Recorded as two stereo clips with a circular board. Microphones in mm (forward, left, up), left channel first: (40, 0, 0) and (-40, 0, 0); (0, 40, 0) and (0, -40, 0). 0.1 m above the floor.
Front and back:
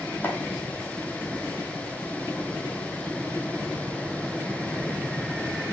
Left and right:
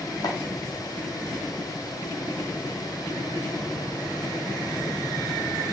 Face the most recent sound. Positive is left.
turn(degrees=65)